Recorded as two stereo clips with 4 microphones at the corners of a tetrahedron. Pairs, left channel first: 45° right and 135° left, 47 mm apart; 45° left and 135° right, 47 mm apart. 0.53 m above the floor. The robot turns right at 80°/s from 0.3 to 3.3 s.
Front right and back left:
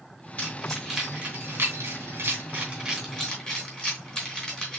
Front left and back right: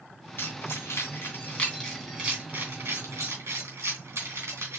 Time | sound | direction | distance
0.4 | keys jangling | 15° left | 3 m